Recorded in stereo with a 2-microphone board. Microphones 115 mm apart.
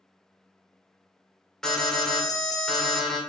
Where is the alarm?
5° left (ahead or behind), 1.8 m.